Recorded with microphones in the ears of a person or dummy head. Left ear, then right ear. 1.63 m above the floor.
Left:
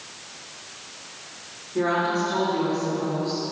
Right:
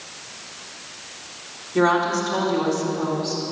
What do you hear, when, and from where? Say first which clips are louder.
1.8 s a woman speaking: right 4 dB; 70° right (ahead or behind), 4 m